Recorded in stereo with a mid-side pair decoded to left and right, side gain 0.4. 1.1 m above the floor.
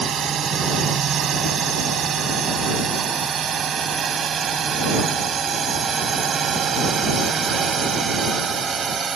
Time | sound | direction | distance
0.0 | a drone | 60° right | ?